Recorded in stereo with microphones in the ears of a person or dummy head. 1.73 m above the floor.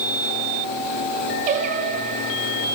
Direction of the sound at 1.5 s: 40° right (ahead or behind).